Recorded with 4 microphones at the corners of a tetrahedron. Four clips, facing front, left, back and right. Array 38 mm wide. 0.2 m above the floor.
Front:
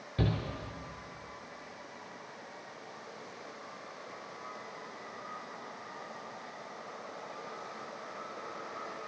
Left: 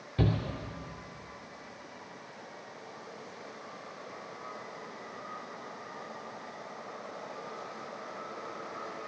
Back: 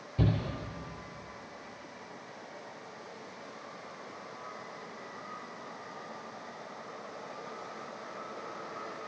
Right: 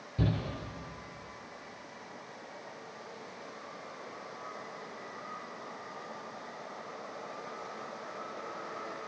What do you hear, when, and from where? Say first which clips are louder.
0.2 s a shout: left 2 dB, back 2 dB; 40° left, 2.5 m